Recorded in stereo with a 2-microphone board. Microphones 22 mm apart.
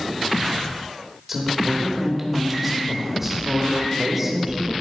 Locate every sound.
1.3 s a woman speaking: 10° right (ahead or behind), 1.7 m